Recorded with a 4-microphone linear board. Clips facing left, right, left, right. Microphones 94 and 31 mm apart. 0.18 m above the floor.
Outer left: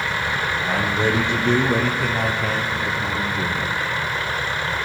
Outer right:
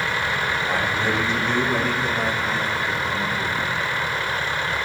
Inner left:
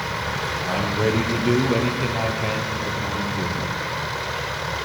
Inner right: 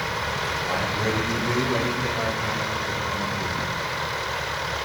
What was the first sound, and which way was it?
A man speaking, 65° left (ahead or behind).